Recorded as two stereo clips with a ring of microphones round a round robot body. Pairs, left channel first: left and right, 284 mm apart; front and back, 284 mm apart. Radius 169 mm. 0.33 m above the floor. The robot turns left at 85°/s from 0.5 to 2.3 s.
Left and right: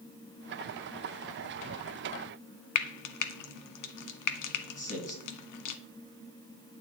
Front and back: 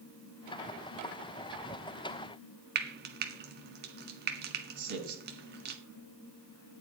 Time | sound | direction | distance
2.8 | frying | 120° left | 1.0 m
4.8 | a man speaking | 155° left | 3 m